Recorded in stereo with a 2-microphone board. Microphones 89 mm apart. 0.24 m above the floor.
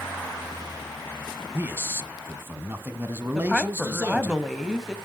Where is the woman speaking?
Centre (ahead or behind), 1.4 m.